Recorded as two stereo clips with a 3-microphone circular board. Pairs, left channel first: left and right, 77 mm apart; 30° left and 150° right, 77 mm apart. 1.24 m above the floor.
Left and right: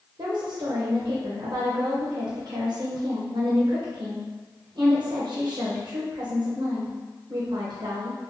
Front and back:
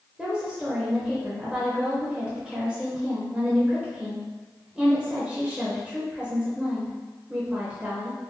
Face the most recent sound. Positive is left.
turn(degrees=-65)